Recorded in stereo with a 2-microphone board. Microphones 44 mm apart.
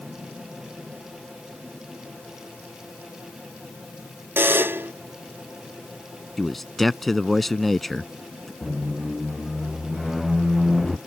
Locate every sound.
4.4 s a buzzer: 55° right (ahead or behind)
6.4 s a man speaking: 5° left (ahead or behind)
8.6 s a squeak: 5° right (ahead or behind)